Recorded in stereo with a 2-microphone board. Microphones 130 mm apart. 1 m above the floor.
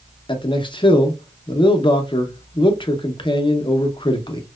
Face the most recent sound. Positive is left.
turn(degrees=40)  # may be behind; listen again after turning